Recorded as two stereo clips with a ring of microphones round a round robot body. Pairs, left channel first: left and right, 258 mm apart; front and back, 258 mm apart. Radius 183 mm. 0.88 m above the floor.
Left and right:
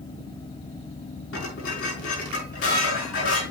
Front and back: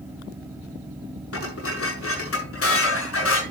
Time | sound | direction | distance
1.3 | dishes clattering | 30° left | 7 m